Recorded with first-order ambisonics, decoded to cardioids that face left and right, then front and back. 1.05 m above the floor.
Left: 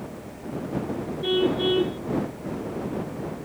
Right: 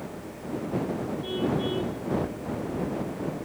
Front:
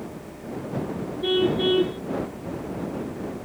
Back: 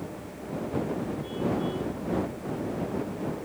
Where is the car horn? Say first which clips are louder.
Left 8 dB, front 12 dB; 30° left.